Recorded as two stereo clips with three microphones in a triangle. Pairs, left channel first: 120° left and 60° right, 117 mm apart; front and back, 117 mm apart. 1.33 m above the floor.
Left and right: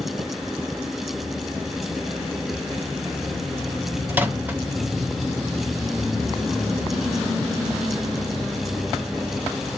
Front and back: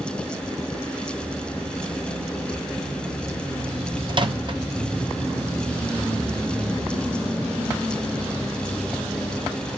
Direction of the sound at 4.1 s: 130° right.